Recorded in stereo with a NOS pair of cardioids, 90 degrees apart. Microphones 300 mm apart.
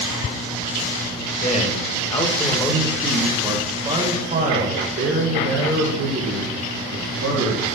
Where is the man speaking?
25° left, 2.5 m; by 7.7 s 65° right, 3.5 m.